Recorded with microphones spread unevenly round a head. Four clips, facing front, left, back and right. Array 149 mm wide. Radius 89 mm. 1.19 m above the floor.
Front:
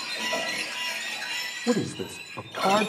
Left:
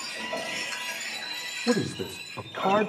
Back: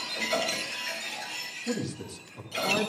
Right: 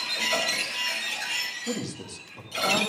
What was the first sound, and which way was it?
A man speaking, 20° left.